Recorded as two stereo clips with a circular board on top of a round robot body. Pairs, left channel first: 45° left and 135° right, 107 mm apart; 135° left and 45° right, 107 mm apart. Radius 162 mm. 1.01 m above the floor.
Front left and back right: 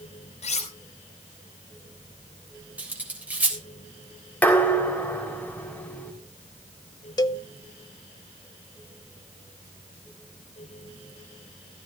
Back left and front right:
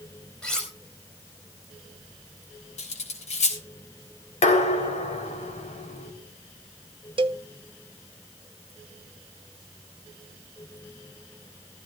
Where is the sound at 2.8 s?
150° left, 3.5 m.